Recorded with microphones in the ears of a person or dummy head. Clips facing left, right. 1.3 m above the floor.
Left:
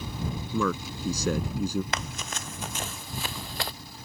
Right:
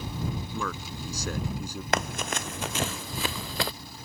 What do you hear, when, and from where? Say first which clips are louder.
0.5 s a man speaking: left 6 dB; 70° left (ahead or behind)
1.9 s running footsteps: right 6 dB; 50° right (ahead or behind); by 3.7 s 70° right (ahead or behind)